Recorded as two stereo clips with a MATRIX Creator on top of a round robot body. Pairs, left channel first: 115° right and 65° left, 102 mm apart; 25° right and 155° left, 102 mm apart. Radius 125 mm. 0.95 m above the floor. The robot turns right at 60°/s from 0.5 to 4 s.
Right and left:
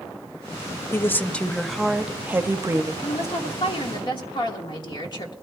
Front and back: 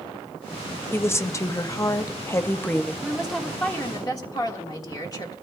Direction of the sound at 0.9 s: 70° right.